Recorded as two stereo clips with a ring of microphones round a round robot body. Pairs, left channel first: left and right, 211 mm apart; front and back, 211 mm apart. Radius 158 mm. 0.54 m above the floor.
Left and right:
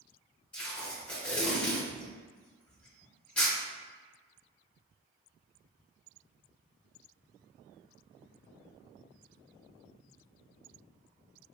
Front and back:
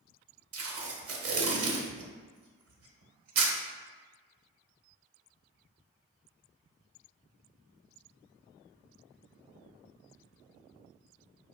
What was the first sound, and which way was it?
Tape being pulled, 175° left.